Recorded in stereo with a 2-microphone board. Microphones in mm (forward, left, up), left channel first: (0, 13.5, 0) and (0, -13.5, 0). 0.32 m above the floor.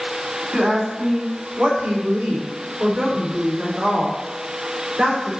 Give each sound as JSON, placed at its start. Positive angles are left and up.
{"t": 0.5, "sound": "a woman speaking", "side_deg": -50, "distance_m": 2.5}